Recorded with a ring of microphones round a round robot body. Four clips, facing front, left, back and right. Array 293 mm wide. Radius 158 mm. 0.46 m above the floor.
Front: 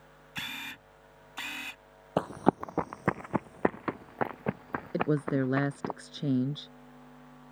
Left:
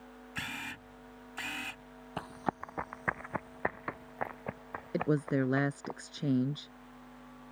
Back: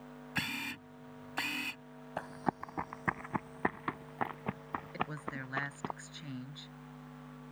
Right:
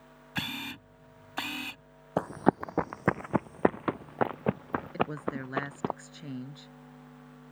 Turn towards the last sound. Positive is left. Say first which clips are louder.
# left 5 dB, front 15 dB
turn(degrees=30)